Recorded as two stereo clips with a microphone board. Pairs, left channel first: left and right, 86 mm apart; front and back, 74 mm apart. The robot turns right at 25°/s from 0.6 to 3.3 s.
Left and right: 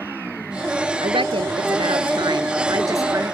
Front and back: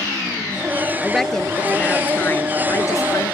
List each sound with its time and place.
1.0 s a woman speaking: 90° right; by 3.3 s 35° right